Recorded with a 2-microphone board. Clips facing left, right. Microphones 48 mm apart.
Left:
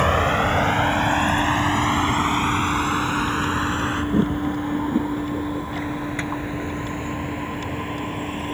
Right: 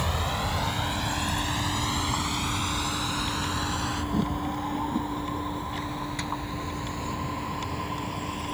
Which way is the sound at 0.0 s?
50° left (ahead or behind).